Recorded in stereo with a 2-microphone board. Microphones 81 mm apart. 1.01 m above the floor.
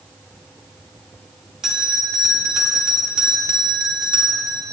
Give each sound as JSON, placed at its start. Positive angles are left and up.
{"t": 1.6, "sound": "a bell", "side_deg": -5, "distance_m": 0.8}